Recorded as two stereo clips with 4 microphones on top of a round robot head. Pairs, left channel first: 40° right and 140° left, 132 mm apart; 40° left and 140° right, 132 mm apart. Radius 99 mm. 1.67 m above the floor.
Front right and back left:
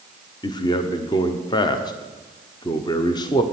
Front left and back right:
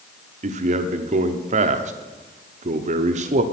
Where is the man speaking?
105° right, 0.8 m.